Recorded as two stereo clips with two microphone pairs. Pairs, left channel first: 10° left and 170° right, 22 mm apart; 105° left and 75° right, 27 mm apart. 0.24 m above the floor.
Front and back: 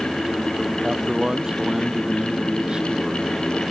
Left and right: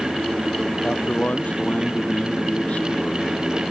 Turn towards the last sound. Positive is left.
turn(degrees=145)